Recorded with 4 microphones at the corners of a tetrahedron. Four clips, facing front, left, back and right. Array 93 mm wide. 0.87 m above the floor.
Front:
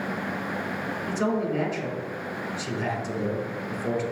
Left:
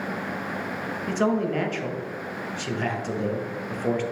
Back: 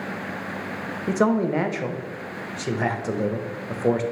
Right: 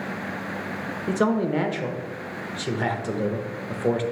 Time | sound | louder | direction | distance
1.1 | a man speaking | right 2 dB, back 6 dB | 165° right | 0.8 m